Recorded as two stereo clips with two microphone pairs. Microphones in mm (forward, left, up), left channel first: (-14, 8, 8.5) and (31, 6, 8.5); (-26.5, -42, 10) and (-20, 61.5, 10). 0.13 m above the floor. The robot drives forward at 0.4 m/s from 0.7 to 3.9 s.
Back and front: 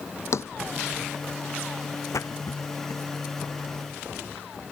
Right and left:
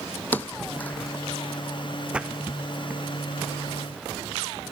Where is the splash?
165° left.